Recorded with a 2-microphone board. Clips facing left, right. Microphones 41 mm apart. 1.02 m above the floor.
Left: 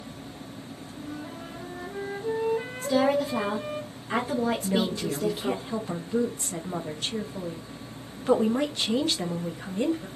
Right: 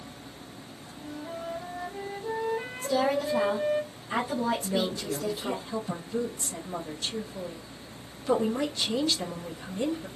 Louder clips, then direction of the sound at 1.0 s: Right 1 dB; 15° left (ahead or behind).